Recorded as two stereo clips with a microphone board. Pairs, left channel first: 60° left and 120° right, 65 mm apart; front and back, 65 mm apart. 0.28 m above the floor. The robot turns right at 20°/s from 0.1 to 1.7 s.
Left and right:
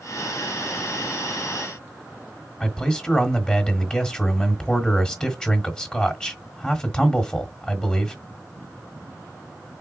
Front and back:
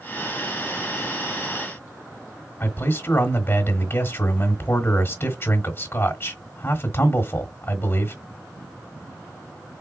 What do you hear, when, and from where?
2.6 s a man speaking: 10° right, 1.3 m